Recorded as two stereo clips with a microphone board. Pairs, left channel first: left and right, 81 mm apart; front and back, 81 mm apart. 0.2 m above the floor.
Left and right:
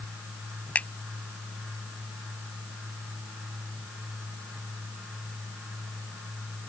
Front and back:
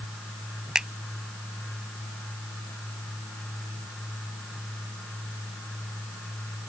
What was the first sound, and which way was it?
A finger snap, 115° left.